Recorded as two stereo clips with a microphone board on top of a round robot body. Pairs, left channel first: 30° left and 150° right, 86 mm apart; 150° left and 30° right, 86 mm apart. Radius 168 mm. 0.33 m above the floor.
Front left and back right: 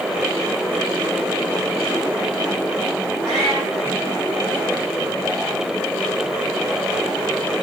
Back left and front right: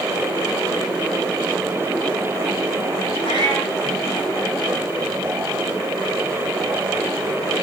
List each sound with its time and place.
3.2 s a cat meowing: 60° right, 6.5 m